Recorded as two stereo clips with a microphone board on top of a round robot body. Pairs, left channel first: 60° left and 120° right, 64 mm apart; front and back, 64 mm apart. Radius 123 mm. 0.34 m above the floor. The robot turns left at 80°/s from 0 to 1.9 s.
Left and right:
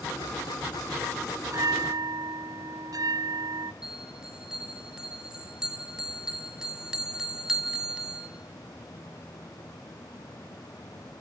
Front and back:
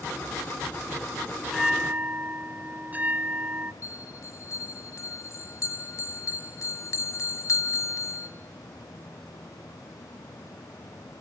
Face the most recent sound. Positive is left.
turn(degrees=-40)